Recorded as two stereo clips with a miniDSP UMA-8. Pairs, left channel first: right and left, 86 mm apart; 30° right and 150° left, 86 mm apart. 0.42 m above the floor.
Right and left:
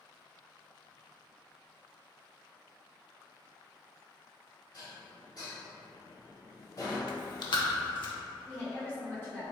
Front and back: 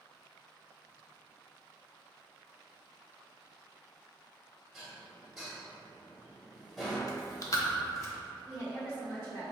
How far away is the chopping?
No chopping in this recording.